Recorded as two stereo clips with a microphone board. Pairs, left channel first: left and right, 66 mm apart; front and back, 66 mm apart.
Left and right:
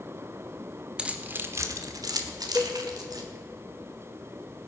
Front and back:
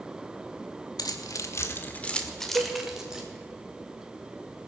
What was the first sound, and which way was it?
Keys jangling, 15° right.